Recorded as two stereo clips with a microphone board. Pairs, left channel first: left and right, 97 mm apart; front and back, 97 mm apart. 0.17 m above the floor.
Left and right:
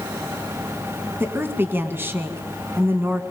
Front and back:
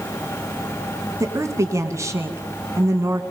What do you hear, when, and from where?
1.2 s a woman speaking: 145° right, 1.9 m